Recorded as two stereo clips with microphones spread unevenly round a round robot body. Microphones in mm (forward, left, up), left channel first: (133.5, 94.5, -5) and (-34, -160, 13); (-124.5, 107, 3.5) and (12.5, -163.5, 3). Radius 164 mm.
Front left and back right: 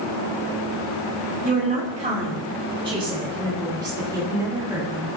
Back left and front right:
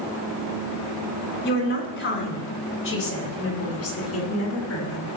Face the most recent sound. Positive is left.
turn(degrees=155)